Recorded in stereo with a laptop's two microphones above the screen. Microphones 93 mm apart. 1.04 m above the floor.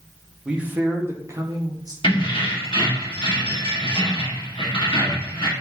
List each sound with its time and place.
0.5 s a man speaking: 10° right (ahead or behind), 0.7 m; by 1.9 s 45° right (ahead or behind), 1.0 m
2.0 s keys jangling: 65° left (ahead or behind), 1.0 m